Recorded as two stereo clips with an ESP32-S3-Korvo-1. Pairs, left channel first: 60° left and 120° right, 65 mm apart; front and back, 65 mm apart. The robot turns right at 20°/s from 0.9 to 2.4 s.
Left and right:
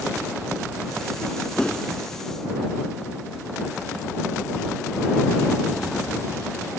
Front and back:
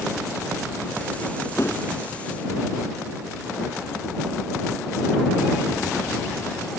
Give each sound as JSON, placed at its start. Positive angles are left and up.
{"t": 1.6, "sound": "a whoosh", "azimuth_deg": -15}